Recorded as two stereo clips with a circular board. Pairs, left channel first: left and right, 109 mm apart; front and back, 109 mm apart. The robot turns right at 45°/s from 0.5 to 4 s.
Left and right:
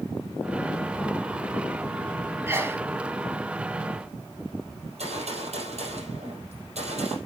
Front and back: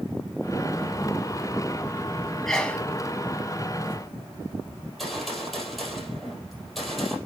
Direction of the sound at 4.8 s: 90° right.